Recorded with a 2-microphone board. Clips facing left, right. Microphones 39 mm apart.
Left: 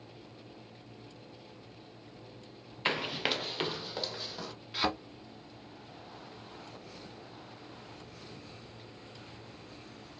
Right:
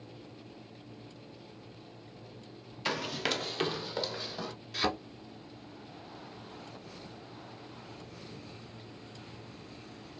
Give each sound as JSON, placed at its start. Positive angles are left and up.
{"t": 2.9, "sound": "running footsteps", "side_deg": 30, "distance_m": 0.5}
{"t": 4.7, "sound": "a thud", "side_deg": 20, "distance_m": 1.3}